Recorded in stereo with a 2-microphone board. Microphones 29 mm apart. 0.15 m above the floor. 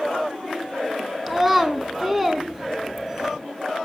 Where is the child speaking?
Centre (ahead or behind), 0.7 m.